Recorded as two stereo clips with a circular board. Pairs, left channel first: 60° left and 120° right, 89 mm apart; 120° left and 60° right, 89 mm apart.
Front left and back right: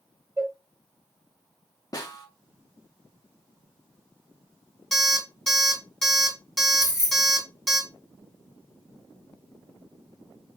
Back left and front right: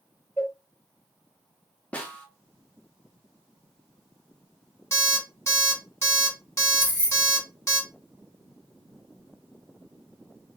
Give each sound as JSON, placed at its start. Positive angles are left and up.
{"t": 0.4, "sound": "a cowbell", "azimuth_deg": -175, "distance_m": 0.9}
{"t": 1.9, "sound": "a snare drum", "azimuth_deg": 55, "distance_m": 0.6}
{"t": 4.9, "sound": "an alarm clock", "azimuth_deg": 150, "distance_m": 1.0}
{"t": 6.8, "sound": "keys jangling", "azimuth_deg": 5, "distance_m": 1.1}